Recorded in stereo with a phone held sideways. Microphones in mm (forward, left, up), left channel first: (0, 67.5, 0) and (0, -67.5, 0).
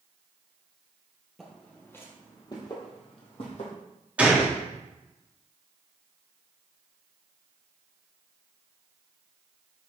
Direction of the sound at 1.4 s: Centre (ahead or behind).